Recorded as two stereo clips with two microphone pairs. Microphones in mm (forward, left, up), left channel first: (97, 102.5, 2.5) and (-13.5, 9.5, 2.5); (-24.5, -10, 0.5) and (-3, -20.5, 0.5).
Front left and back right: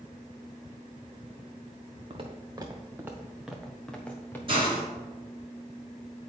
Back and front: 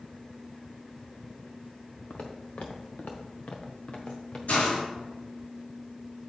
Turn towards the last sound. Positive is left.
turn(degrees=165)